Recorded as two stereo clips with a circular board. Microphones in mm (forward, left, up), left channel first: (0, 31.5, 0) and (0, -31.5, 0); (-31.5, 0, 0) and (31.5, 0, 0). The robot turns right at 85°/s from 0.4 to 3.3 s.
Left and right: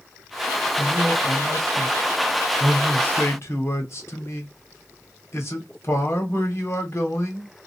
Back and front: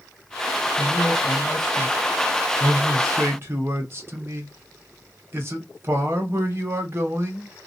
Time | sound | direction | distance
0.8 | a man speaking | 165° right | 1.1 m